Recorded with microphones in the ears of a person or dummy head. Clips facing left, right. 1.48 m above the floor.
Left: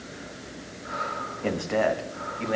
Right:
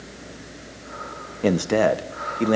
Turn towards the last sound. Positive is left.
turn(degrees=-50)  # may be behind; listen again after turning